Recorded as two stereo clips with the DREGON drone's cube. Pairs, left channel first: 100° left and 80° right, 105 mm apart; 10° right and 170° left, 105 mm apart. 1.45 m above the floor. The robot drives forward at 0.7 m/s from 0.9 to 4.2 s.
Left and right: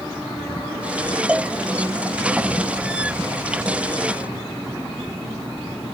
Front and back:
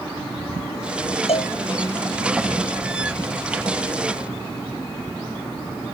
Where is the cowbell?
Straight ahead.